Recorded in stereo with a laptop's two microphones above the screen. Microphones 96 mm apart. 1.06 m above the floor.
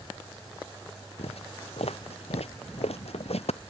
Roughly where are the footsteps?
Left.